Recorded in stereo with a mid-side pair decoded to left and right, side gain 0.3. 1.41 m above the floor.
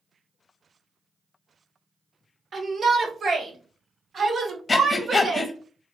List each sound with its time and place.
2.5 s a shout: 60° right, 1.7 m; by 5.5 s 55° right, 3.5 m
4.7 s breathing: 45° left, 0.9 m